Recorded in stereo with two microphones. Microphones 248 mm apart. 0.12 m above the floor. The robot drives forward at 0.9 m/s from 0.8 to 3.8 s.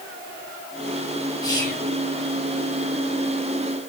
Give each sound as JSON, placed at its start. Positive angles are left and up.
{"t": 1.4, "sound": "whispering", "side_deg": 15, "distance_m": 5.5}